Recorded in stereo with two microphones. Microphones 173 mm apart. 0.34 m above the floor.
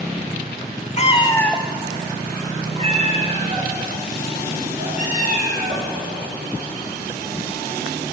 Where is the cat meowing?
45° left (ahead or behind), 0.8 m; by 5.9 s 55° right (ahead or behind), 4.5 m.